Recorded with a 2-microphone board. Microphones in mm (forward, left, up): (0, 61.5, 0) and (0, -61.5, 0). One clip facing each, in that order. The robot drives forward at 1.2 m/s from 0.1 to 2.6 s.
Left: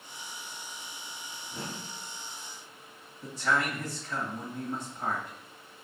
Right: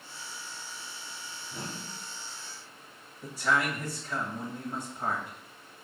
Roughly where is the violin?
No violin in this recording.